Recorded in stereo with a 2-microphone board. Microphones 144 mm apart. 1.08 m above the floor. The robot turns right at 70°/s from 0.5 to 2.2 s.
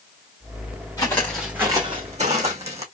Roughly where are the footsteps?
Left.